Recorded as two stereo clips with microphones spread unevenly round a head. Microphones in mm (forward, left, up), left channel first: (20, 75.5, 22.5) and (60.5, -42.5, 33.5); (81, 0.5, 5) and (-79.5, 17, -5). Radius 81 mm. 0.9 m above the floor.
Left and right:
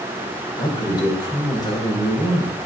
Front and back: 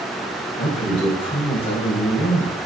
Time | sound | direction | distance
0.6 | a man speaking | 50° left | 3 m